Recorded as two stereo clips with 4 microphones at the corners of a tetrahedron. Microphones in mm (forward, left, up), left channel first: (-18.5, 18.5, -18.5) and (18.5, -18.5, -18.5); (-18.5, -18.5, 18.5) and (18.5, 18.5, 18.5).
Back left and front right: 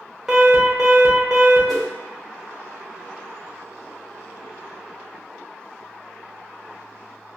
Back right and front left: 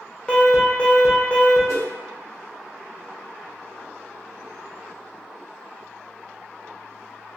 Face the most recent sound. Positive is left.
turn(degrees=45)